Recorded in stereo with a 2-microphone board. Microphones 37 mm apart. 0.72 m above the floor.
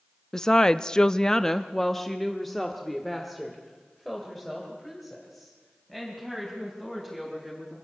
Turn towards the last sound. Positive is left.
turn(degrees=0)  # may be behind; listen again after turning